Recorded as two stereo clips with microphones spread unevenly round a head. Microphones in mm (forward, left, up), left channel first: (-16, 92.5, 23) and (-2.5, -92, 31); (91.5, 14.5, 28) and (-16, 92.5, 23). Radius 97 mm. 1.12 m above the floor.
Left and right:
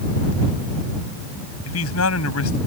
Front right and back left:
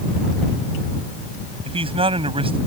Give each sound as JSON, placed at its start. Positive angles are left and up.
{"t": 1.6, "sound": "a man speaking", "azimuth_deg": 95}